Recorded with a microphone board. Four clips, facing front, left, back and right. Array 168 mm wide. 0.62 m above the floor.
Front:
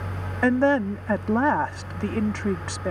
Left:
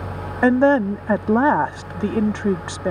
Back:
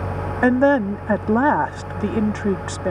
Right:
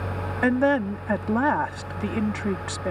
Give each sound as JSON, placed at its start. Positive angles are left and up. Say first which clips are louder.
{"t": 0.4, "sound": "a woman speaking", "louder": "left 6 dB, back 4 dB", "azimuth_deg": 130}